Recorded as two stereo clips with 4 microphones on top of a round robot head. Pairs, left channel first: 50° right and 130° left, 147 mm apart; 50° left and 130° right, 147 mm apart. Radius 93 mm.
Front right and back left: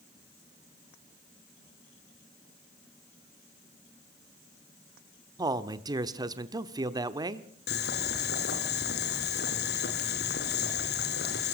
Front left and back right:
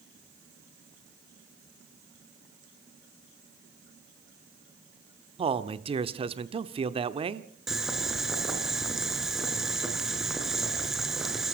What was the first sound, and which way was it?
A man speaking, 170° right.